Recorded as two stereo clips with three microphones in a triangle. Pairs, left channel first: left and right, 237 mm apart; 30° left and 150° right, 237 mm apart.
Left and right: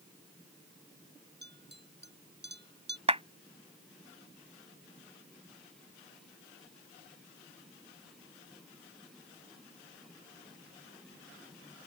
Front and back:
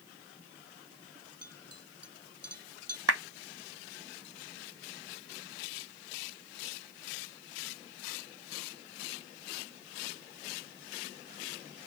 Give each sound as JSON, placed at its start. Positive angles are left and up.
{"t": 1.4, "sound": "a clink", "azimuth_deg": -135}
{"t": 3.1, "sound": "a clap", "azimuth_deg": -155}